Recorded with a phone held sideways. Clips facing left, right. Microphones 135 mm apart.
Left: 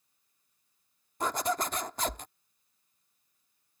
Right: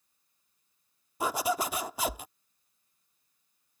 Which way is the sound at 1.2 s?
10° right (ahead or behind).